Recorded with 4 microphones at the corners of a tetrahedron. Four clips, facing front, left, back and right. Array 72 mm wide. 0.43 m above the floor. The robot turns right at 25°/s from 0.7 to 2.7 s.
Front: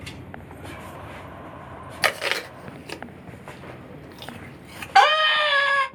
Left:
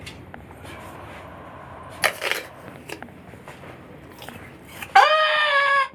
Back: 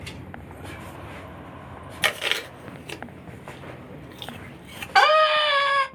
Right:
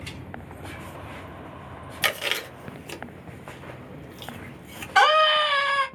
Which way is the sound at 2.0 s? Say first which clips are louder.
Left 3 dB, front 1 dB; 55° left.